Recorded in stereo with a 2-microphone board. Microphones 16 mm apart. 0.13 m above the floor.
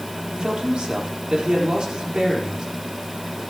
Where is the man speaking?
60° right (ahead or behind), 4 m.